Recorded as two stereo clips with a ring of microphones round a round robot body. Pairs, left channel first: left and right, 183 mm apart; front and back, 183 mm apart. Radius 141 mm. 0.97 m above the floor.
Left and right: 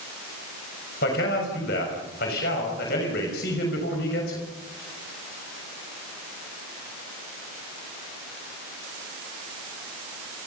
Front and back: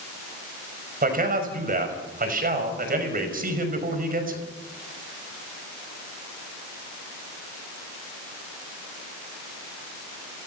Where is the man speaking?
140° left, 5.5 m.